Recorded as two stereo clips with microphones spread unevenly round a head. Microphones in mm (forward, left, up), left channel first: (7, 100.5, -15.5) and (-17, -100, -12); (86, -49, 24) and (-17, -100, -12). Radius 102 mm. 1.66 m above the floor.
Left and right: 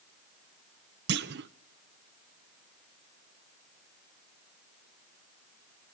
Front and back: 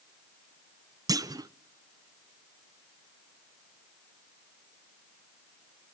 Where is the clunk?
90° right, 0.7 m.